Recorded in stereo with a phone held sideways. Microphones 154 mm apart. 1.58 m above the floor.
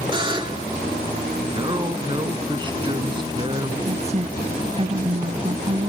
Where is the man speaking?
30° right (ahead or behind).